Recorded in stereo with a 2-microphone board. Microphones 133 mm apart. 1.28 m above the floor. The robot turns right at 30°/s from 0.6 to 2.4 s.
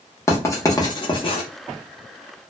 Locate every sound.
0.3 s writing: 20° left (ahead or behind), 0.7 m; by 1.4 s 45° left (ahead or behind), 0.7 m